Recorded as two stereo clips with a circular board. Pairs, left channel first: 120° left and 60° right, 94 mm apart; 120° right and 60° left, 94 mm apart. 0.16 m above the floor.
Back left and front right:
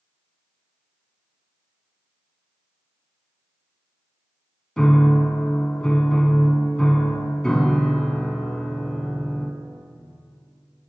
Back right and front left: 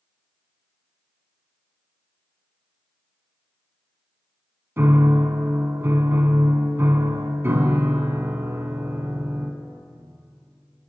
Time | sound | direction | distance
4.8 | a piano | 50° left | 0.5 m